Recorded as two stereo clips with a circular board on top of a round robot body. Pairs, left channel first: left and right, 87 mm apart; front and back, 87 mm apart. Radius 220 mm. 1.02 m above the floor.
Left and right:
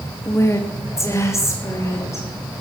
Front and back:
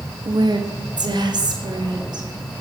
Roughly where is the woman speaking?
Behind left.